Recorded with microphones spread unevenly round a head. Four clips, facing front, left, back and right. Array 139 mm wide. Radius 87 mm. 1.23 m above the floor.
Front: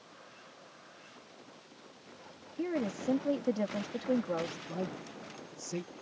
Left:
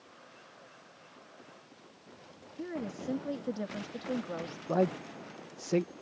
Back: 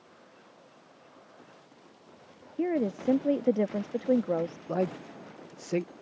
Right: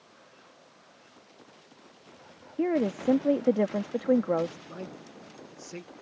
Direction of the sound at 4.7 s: 135° left.